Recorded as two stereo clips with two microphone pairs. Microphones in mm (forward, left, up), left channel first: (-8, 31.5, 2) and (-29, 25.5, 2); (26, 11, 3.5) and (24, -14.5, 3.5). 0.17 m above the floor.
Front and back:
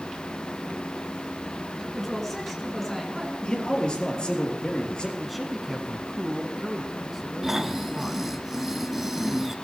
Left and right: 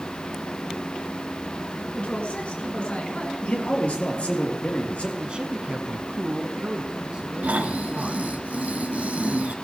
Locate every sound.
1.9 s a woman speaking: 90° left, 2.5 m
3.4 s a man speaking: 55° left, 4 m
5.2 s a man speaking: 80° right, 1.3 m
7.4 s snoring: 90° right, 0.9 m